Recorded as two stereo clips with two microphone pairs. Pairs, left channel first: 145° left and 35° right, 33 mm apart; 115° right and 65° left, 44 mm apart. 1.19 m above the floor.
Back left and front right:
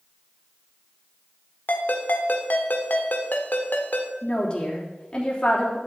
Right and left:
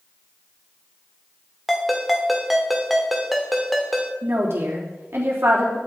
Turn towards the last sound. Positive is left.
turn(degrees=85)